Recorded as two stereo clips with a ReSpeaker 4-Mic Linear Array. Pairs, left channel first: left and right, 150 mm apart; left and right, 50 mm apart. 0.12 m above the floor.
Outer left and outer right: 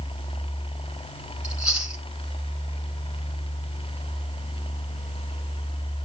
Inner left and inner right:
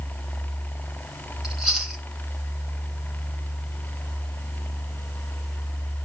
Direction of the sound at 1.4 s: 5° right (ahead or behind).